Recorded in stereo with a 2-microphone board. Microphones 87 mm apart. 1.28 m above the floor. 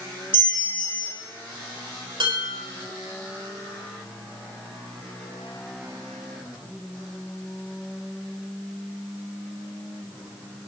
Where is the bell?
75° right (ahead or behind), 3.5 m.